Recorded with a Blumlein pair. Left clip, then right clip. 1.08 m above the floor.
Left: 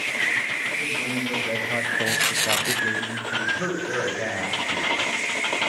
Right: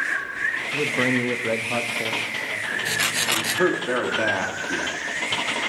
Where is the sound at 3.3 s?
35° right, 2 m.